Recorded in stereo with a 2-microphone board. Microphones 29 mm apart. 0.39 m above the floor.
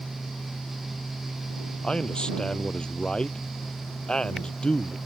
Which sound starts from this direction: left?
A man speaking, at 1.8 s.